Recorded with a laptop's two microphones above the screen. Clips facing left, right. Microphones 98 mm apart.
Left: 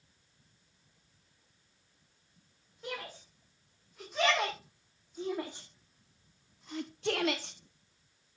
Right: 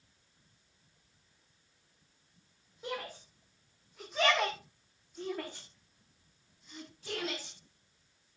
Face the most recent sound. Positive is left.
turn(degrees=50)  # may be behind; listen again after turning